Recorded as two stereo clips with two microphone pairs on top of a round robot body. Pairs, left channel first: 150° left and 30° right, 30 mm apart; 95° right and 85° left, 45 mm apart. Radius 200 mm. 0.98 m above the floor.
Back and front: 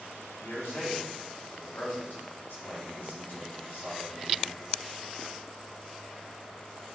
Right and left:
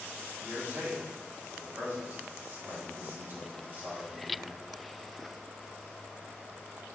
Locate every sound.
0.4 s a man speaking: 130° left, 4.5 m